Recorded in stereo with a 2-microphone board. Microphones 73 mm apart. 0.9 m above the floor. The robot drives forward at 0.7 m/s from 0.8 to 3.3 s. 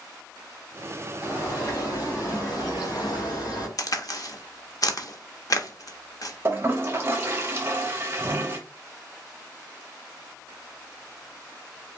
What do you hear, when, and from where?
1.2 s a bird: 40° left (ahead or behind), 3 m; by 3.7 s 70° left (ahead or behind), 2 m
3.8 s a crack: 55° left (ahead or behind), 0.6 m
6.5 s a toilet flushing: 30° right (ahead or behind), 0.8 m